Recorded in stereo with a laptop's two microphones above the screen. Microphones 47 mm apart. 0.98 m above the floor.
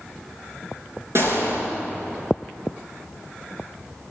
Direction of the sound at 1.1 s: 65° right (ahead or behind).